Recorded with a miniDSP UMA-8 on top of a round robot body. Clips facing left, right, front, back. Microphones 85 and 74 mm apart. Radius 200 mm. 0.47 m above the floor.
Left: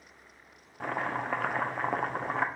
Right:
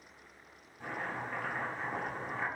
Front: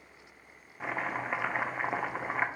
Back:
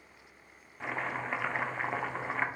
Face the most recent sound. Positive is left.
turn(degrees=80)